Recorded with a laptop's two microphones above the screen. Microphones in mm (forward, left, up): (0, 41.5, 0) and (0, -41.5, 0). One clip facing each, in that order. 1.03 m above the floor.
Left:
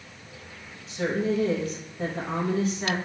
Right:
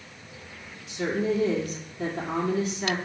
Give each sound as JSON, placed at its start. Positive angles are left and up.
{"t": 0.9, "sound": "a woman speaking", "side_deg": 35, "distance_m": 1.5}